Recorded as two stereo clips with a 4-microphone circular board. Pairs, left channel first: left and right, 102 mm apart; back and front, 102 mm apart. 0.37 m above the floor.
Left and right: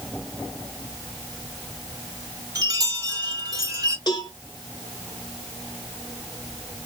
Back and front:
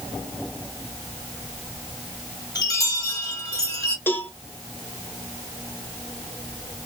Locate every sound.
2.5 s a chime: 135° right, 1.8 m
4.1 s a cowbell: 115° left, 1.1 m